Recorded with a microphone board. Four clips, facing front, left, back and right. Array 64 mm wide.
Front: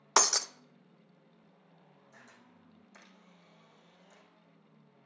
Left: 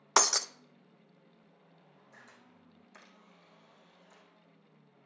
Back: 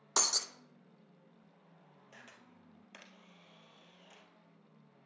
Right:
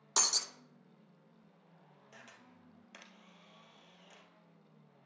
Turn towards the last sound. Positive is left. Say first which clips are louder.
# right 1 dB, back 1 dB
turn(degrees=-145)